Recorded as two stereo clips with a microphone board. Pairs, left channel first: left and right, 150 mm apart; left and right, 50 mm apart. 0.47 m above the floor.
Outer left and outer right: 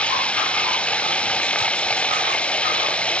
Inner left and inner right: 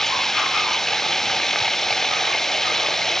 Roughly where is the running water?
Centre.